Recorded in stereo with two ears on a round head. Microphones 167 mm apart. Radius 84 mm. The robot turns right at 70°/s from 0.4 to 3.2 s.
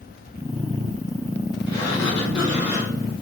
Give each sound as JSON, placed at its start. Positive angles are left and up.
{"t": 1.7, "sound": "a sliding door", "azimuth_deg": 75, "distance_m": 3.0}